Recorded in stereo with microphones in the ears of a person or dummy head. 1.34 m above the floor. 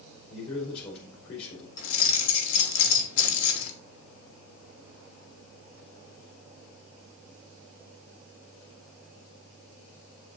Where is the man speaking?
60° left (ahead or behind), 4 m.